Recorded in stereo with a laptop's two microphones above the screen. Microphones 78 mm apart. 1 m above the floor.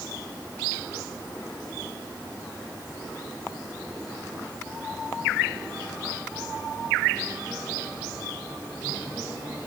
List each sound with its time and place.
Only background noise.